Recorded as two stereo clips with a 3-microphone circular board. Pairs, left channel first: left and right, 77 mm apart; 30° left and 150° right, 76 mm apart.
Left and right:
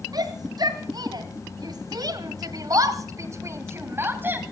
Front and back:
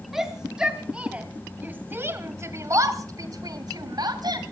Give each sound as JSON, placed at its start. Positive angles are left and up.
{"t": 0.1, "sound": "a shout", "azimuth_deg": -65, "distance_m": 3.0}